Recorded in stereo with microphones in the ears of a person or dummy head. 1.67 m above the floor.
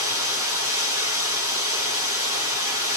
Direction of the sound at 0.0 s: 10° right (ahead or behind).